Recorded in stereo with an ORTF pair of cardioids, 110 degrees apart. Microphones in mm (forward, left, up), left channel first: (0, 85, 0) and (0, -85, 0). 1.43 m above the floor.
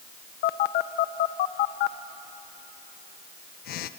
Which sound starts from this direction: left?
A phone buzzing, at 0.4 s.